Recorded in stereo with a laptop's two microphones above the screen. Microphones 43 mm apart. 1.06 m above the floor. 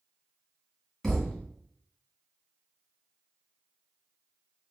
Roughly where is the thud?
Centre.